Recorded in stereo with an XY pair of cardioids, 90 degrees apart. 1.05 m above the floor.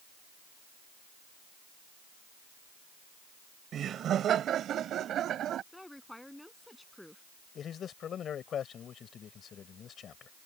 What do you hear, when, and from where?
3.7 s laughter: 65° right; by 5.6 s 75° right
5.7 s a woman speaking: 10° left
7.5 s a man speaking: 65° left